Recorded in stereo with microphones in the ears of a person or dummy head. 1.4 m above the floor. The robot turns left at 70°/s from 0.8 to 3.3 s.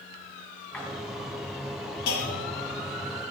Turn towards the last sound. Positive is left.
turn(degrees=-30)